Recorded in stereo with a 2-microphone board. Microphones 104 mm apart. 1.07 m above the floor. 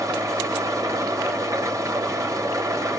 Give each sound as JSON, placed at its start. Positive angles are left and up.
{"t": 0.0, "sound": "an engine running", "side_deg": -35, "distance_m": 1.7}